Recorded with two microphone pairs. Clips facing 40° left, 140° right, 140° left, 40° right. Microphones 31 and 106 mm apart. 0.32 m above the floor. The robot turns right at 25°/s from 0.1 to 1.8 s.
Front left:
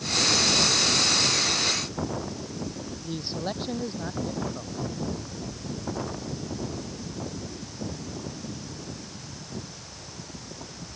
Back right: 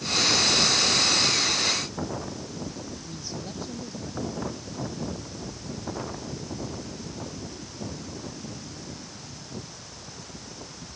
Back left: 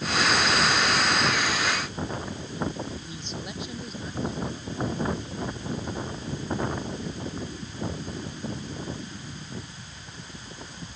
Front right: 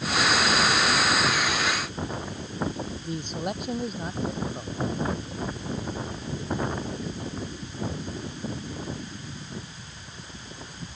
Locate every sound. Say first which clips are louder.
3.0 s a man speaking: front left 5 dB, front right 6 dB; straight ahead